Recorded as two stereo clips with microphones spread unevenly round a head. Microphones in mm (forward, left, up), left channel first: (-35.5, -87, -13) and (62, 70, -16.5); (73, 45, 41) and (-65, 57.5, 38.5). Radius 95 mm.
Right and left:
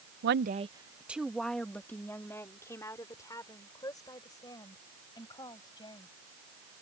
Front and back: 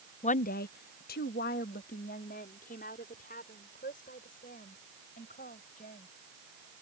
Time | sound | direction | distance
0.2 | a woman speaking | 35° left | ?